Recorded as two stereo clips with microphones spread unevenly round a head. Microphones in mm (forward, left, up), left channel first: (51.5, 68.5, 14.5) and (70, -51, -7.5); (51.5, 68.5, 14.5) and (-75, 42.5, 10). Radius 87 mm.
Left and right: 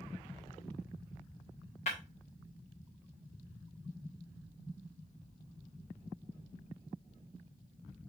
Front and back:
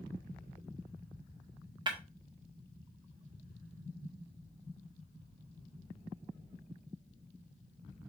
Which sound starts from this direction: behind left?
Breaking glass, at 1.9 s.